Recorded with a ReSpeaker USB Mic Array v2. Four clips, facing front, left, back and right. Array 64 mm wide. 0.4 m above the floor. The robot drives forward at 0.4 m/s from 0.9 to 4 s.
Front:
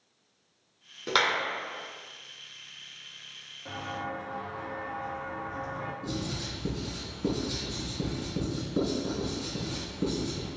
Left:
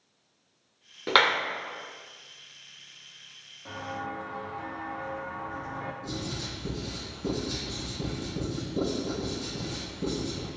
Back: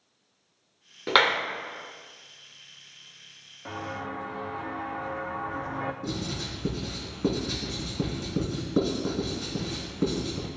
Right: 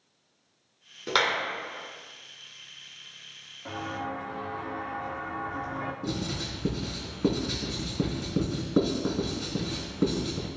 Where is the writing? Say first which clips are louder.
Right 3 dB, back 2 dB; 125° right, 4 m.